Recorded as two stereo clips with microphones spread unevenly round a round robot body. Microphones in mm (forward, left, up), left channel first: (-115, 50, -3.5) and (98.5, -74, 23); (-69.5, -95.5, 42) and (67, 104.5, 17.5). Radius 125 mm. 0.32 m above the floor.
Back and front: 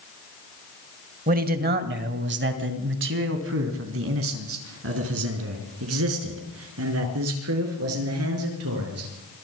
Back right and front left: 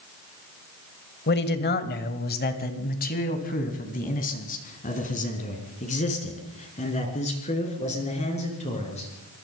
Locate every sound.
1.3 s a man speaking: 85° right, 2.0 m; by 9.1 s 60° right, 6.5 m